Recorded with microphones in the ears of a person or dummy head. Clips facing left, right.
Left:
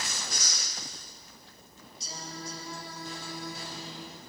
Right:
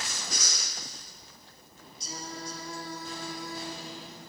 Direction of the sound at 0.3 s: 60° right (ahead or behind).